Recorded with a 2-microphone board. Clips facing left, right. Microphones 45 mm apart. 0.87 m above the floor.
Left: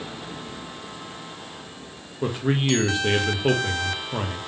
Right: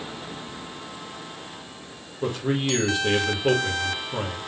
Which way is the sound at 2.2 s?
15° left (ahead or behind).